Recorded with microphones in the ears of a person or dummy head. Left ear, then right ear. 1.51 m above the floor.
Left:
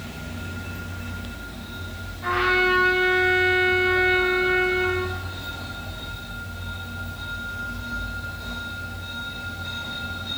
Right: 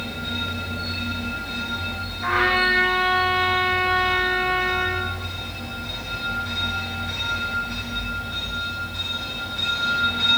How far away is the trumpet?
About 6.5 m.